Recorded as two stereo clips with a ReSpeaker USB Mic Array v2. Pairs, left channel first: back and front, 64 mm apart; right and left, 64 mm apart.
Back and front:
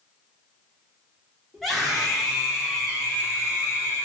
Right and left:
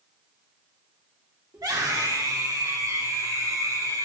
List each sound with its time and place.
1.5 s a scream: 90° left, 2.5 m; by 4.0 s 75° left, 5.5 m